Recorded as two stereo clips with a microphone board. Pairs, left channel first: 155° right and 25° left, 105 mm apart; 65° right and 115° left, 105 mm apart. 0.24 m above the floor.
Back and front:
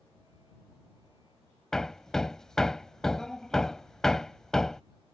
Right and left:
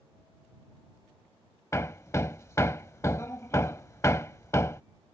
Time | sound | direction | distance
1.7 | hammering | 80° right | ?